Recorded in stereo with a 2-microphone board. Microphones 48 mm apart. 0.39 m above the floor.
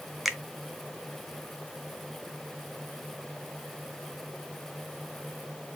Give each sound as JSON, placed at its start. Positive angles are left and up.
{"t": 0.2, "sound": "a finger snap", "side_deg": 0, "distance_m": 0.6}